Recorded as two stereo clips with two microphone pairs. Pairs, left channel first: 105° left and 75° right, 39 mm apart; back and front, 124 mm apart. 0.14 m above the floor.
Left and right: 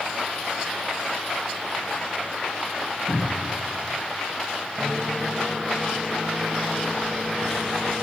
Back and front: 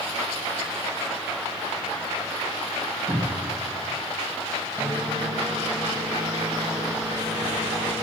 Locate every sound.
3.1 s a cupboard door: 85° left, 3.5 m
4.8 s a microwave: 40° left, 1.2 m